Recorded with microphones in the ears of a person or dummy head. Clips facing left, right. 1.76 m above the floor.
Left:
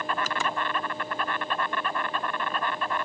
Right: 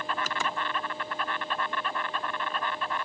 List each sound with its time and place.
0.0 s an insect: 50° left (ahead or behind)